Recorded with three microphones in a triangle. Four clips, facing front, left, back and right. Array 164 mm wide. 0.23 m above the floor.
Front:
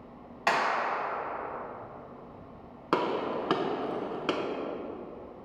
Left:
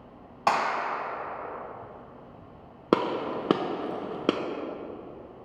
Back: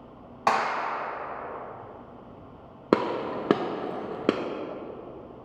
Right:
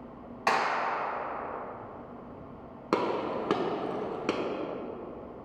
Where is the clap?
140° left, 1.0 m.